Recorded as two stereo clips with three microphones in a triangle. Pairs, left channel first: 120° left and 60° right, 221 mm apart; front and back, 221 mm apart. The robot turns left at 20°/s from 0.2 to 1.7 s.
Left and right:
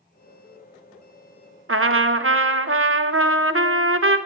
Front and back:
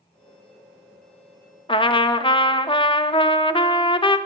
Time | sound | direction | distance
1.7 | a trumpet | 70° right | 0.7 m